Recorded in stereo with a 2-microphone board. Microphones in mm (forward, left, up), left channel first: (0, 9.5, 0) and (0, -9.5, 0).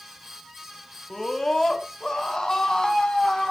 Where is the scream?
25° left (ahead or behind), 1.7 m; by 3.5 s 40° left (ahead or behind), 2.5 m.